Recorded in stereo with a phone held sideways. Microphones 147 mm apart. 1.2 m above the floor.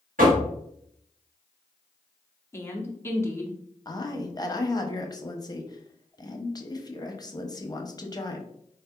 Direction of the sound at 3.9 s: 30° left (ahead or behind).